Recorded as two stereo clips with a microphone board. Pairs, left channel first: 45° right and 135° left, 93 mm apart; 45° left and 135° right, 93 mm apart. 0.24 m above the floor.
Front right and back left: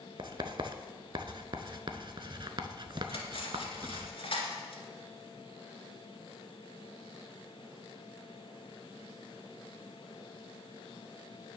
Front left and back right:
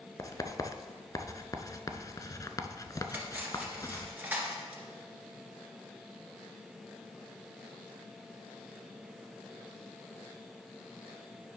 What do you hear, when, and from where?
0.2 s writing: 100° left, 0.5 m
3.1 s cutlery clinking: 65° right, 1.8 m